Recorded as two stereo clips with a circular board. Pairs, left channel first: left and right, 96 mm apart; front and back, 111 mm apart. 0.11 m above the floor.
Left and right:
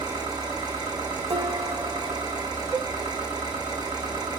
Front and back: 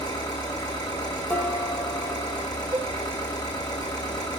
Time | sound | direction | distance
0.0 | an engine running | 50° right | 4.5 m
1.3 | dishes clattering | 75° right | 2.5 m
2.7 | a cowbell | 155° right | 0.9 m